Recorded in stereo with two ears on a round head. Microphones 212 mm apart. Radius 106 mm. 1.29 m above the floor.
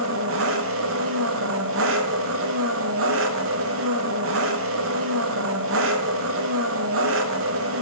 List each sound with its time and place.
0.0 s an engine running: 60° right (ahead or behind), 0.7 m